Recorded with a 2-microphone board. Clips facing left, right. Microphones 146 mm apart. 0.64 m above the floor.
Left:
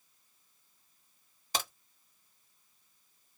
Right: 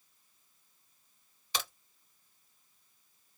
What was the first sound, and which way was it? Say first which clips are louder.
A crack: left 2 dB; 45° left (ahead or behind).